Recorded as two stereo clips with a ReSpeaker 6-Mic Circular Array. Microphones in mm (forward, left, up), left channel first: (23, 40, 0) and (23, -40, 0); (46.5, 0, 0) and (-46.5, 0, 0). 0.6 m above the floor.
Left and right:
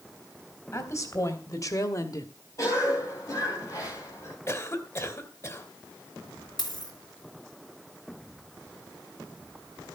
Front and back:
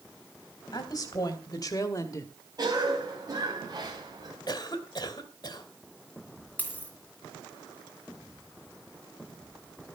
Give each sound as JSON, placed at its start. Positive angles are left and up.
{"t": 0.7, "sound": "a woman speaking", "azimuth_deg": 40, "distance_m": 3.0}
{"t": 2.6, "sound": "a cough", "azimuth_deg": 135, "distance_m": 3.0}
{"t": 4.5, "sound": "a cough", "azimuth_deg": 40, "distance_m": 2.5}
{"t": 6.6, "sound": "a dropped coin", "azimuth_deg": 70, "distance_m": 3.5}